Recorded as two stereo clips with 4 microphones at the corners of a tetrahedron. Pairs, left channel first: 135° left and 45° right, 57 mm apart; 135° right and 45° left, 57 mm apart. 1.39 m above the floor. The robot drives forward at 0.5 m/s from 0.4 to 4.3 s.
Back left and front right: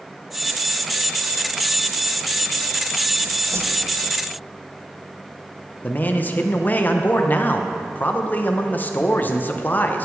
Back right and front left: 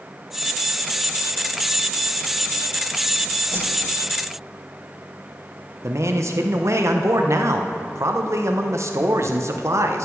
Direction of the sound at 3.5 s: 10° right.